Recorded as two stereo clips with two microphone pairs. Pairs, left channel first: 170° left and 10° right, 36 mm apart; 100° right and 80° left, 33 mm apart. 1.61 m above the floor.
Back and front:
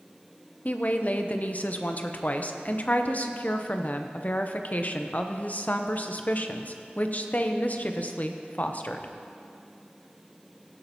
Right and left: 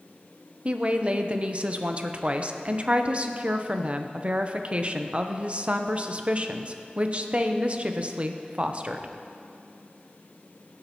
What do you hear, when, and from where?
0.7 s a woman speaking: 130° left, 0.7 m